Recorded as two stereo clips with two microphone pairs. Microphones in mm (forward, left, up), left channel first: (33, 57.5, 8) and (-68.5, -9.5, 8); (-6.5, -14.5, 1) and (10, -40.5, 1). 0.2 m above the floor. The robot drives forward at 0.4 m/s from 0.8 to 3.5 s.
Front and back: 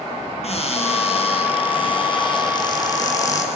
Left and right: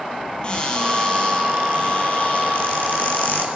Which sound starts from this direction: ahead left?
A cupboard door, at 0.4 s.